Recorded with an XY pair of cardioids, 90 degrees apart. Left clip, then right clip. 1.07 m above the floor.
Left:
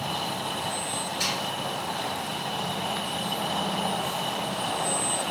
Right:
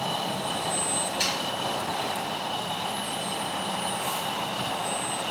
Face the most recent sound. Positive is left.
turn(degrees=-45)